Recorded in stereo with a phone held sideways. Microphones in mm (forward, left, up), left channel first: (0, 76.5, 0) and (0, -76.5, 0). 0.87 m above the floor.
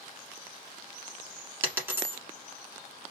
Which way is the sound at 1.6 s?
15° right (ahead or behind).